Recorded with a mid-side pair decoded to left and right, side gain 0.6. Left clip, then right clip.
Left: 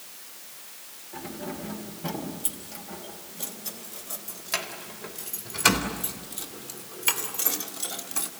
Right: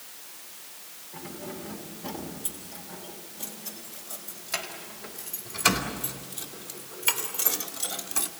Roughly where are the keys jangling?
Ahead left.